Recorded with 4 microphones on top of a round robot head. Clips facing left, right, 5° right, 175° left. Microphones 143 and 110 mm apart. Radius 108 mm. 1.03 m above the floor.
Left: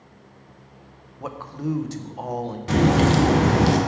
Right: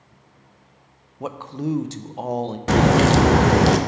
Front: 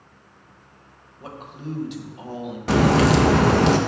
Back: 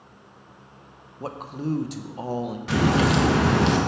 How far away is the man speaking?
About 0.6 m.